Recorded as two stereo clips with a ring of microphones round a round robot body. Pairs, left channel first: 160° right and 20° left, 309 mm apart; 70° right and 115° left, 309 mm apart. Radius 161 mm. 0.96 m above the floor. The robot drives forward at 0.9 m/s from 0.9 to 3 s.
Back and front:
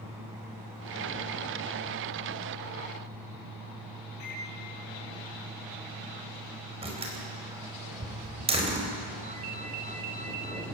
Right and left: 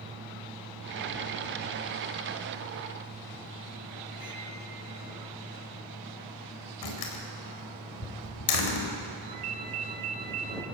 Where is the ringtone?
90° left, 1.9 m.